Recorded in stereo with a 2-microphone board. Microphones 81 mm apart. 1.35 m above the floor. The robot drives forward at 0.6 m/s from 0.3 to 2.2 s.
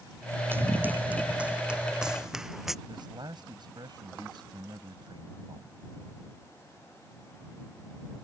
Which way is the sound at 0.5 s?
25° right (ahead or behind).